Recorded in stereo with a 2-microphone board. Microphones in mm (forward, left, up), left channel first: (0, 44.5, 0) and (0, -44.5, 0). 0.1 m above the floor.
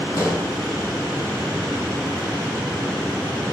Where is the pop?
35° left (ahead or behind), 2.5 m.